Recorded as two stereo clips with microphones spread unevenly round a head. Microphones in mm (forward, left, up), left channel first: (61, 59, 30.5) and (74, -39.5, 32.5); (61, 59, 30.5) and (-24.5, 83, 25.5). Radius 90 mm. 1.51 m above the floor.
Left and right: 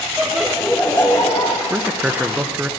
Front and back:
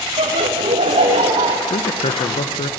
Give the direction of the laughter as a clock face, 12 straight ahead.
5 o'clock.